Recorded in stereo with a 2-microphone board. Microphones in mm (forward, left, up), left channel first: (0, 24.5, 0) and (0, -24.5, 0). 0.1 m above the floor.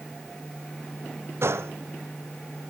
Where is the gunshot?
60° right (ahead or behind), 0.9 m.